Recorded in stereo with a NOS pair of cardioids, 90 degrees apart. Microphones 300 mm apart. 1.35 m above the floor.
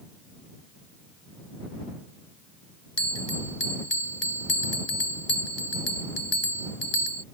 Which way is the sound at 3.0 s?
55° left.